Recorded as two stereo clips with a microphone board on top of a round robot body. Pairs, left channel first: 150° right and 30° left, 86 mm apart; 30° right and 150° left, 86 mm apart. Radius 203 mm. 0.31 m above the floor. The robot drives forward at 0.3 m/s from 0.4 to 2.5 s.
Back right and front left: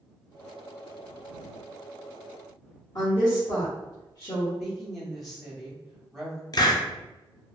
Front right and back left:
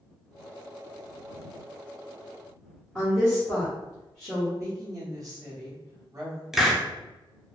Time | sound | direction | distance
3.0 | a woman speaking | 120° right | 1.4 m
4.6 | a woman speaking | 125° left | 1.6 m
6.5 | a hiss | 125° right | 0.7 m